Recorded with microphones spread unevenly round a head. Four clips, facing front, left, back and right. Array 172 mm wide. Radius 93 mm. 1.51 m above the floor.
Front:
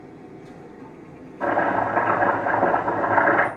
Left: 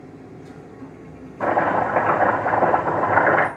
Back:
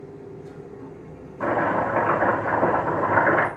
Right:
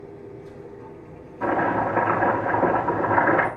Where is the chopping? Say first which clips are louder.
Left 3 dB, front 1 dB; 90° left, 6.5 m.